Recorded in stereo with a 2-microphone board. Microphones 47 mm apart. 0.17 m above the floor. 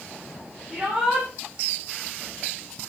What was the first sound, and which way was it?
A shout, 15° right (ahead or behind).